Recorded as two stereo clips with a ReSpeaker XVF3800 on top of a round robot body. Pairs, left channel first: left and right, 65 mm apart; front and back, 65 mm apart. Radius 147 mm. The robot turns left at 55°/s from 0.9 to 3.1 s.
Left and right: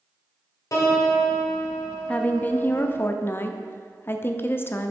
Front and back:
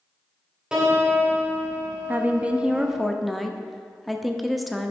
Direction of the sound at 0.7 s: 105° left.